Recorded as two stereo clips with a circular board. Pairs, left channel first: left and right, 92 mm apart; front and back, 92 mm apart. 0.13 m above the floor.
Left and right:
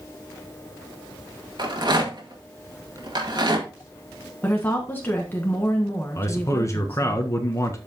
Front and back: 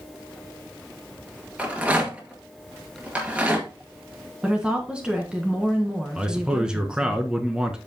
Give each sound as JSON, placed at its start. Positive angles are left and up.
{"t": 1.6, "sound": "a rattle", "azimuth_deg": -105, "distance_m": 2.0}
{"t": 4.4, "sound": "a woman speaking", "azimuth_deg": 120, "distance_m": 1.2}
{"t": 6.2, "sound": "a man speaking", "azimuth_deg": 105, "distance_m": 1.3}